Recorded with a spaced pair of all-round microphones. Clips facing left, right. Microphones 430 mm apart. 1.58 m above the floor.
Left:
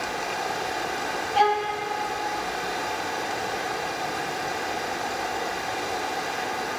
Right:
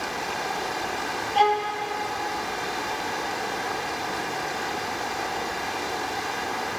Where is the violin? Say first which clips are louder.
Even; 35° left (ahead or behind), 1.6 m.